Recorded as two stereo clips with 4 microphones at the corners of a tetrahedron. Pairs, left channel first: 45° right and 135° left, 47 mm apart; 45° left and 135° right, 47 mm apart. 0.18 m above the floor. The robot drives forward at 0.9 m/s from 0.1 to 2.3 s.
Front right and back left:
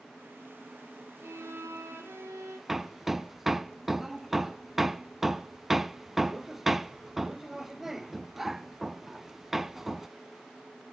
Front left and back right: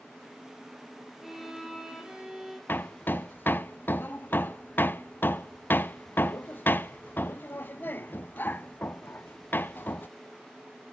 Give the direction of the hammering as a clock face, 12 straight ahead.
10 o'clock.